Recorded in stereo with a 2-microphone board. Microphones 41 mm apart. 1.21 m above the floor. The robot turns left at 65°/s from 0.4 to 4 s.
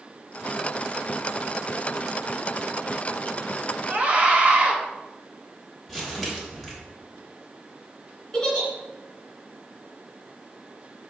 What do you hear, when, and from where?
3.9 s a scream: 35° right (ahead or behind), 2.0 m; by 4.8 s 30° right (ahead or behind), 2.0 m
5.9 s crumpling: 5° right (ahead or behind), 3.5 m
8.3 s a giggle: 15° left (ahead or behind), 3 m